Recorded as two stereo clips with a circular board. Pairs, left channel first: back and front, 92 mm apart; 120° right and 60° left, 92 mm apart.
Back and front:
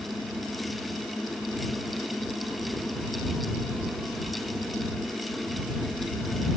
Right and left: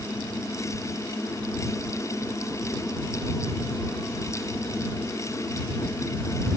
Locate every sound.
Only background noise.